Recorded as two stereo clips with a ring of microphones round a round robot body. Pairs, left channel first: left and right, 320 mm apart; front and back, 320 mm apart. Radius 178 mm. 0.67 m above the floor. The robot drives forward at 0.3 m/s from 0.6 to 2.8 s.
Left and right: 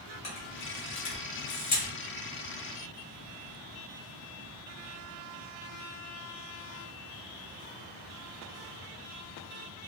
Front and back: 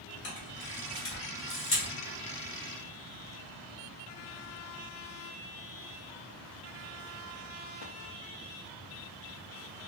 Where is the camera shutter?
55° left, 1.9 m; by 1.9 s 70° left, 1.8 m.